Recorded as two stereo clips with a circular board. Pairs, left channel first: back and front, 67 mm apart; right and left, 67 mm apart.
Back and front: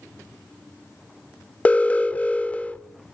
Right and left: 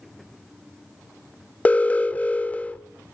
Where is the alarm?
130° right, 0.5 m.